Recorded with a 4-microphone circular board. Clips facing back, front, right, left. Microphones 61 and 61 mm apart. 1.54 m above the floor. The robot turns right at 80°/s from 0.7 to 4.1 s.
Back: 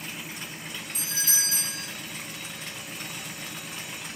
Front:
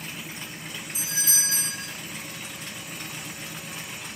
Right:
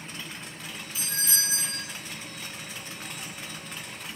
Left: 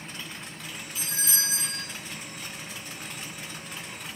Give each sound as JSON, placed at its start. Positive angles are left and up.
{"t": 0.9, "sound": "a doorbell", "azimuth_deg": -85, "distance_m": 1.1}